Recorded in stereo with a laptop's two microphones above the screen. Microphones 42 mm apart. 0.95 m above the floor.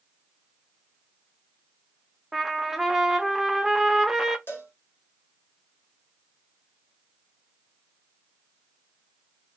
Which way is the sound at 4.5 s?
60° left (ahead or behind).